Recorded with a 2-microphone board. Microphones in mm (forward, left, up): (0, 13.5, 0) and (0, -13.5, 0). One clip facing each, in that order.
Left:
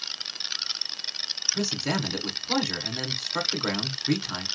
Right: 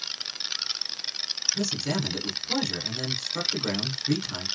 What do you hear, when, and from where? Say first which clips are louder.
1.5 s a man speaking: left 1 dB; 35° left (ahead or behind), 1.7 m